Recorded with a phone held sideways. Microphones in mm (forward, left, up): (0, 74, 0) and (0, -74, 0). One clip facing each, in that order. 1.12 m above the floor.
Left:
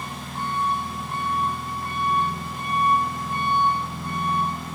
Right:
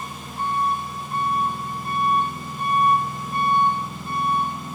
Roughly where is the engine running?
Left.